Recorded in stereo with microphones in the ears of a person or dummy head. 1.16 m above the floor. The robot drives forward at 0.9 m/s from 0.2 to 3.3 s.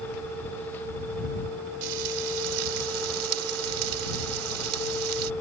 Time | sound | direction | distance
1.8 | frying | 75° right (ahead or behind) | ?